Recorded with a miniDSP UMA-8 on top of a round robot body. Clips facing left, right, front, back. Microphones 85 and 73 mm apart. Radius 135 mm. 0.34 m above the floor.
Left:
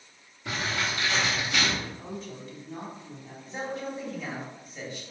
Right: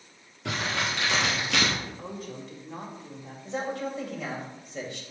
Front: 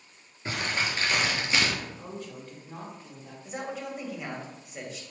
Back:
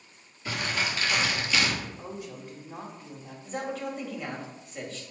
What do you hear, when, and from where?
0.5 s crumpling: 60° right, 1.7 m
1.8 s a woman speaking: 100° right, 2.5 m
3.5 s a man speaking: 80° right, 2 m